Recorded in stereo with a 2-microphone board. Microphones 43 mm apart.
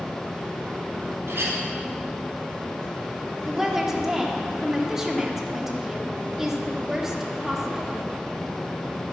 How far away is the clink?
About 2.5 m.